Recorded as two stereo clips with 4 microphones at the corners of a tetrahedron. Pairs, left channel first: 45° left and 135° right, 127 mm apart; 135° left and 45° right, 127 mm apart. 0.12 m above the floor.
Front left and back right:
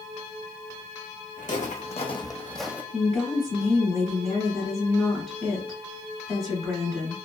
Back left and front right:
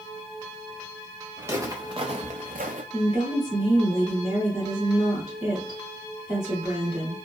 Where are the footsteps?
25° left, 0.9 m; by 2.8 s 60° right, 0.5 m.